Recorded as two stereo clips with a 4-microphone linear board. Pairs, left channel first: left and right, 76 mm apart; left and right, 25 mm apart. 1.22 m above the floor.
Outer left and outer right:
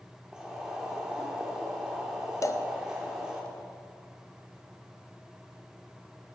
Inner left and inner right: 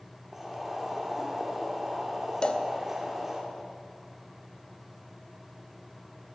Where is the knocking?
I don't hear knocking.